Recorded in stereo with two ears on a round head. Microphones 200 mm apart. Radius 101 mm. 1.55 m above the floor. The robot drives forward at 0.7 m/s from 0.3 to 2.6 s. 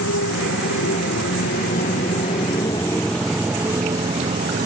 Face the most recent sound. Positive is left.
turn(degrees=-30)  # may be behind; listen again after turning